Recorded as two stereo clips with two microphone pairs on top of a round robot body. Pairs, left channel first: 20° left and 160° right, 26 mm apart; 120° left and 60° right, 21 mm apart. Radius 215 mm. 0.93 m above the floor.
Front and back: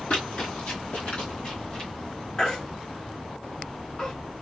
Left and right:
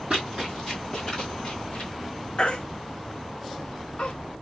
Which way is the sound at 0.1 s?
10° right.